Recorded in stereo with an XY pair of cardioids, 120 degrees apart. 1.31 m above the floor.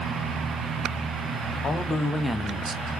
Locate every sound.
1.6 s a man speaking: 35° left, 1.5 m; by 2.9 s 55° right, 1.1 m